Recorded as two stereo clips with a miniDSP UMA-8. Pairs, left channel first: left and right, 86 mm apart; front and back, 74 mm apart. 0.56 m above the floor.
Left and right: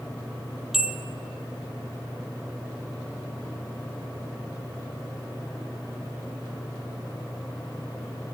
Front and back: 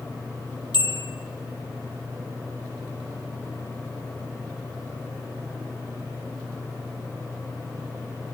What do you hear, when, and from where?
0.7 s a bell: 5° right, 2.5 m